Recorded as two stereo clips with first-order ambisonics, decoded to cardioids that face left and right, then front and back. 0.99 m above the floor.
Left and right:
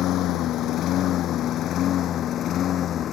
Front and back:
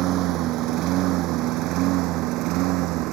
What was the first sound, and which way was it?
A lawn mower, 140° left.